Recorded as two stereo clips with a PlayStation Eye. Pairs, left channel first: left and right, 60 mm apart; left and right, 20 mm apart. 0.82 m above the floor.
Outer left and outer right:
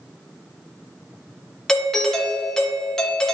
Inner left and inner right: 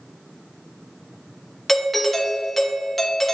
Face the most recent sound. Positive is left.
turn(degrees=10)  # may be behind; listen again after turning